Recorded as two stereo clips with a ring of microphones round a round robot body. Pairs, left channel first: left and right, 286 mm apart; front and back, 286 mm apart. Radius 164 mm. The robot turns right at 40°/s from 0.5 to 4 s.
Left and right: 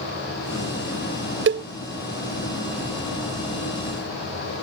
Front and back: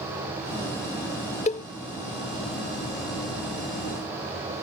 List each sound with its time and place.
1.5 s a cowbell: 60° right; by 1.7 s 50° right